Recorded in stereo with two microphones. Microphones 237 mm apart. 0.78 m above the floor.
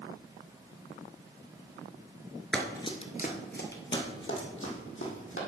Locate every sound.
2.5 s running footsteps: 5° left (ahead or behind), 0.8 m; by 5.4 s 65° left (ahead or behind), 2.5 m